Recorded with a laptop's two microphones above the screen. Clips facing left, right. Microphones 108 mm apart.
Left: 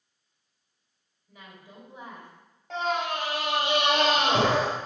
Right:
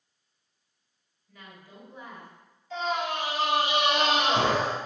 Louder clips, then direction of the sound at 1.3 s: Even; 20° left (ahead or behind).